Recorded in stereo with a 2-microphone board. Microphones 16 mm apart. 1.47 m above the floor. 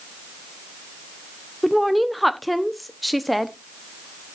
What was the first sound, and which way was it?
A woman speaking, centre (ahead or behind).